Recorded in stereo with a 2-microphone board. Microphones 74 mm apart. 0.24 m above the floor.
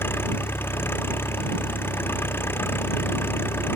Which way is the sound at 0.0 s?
30° left (ahead or behind).